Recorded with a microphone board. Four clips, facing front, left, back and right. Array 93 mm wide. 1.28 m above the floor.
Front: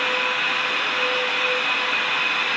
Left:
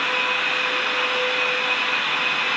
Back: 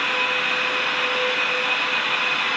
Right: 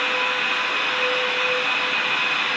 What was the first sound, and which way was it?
Only background noise.